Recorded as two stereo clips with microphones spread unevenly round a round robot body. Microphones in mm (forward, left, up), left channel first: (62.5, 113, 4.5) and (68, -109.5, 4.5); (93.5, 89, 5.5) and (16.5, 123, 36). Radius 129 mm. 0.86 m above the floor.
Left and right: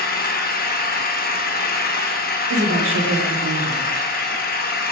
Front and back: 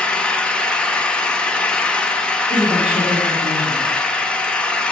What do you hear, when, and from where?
0.0 s an engine running: 45° left, 1.0 m
2.5 s a woman speaking: 60° right, 1.6 m